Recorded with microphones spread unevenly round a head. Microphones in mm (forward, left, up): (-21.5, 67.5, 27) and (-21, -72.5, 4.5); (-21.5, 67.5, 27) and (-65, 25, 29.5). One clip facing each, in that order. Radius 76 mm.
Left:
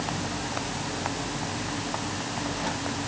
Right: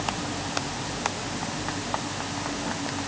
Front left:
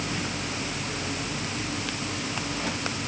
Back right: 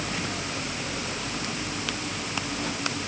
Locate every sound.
Only background noise.